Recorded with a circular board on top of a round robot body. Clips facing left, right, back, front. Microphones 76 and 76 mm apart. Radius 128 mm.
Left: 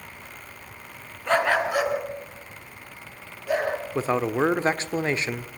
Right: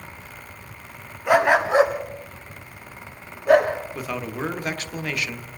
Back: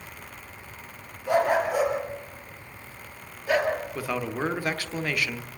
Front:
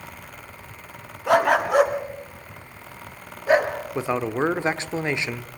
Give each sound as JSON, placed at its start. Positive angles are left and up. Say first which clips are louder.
{"t": 1.3, "sound": "a dog barking", "louder": "right 4 dB, front 4 dB", "azimuth_deg": -10, "distance_m": 2.0}
{"t": 4.0, "sound": "a man speaking", "louder": "left 6 dB, front 5 dB", "azimuth_deg": 50, "distance_m": 1.3}